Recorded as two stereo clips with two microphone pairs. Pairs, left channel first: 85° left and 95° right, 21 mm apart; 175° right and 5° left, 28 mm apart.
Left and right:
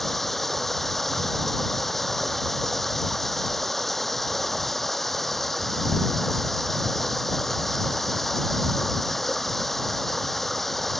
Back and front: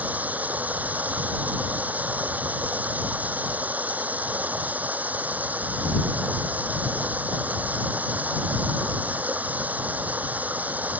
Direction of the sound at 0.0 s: 10° left.